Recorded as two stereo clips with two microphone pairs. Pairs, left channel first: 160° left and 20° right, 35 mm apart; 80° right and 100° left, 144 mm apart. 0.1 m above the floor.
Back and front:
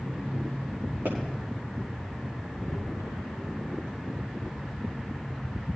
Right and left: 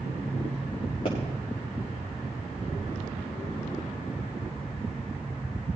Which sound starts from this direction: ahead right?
A pop, at 1.1 s.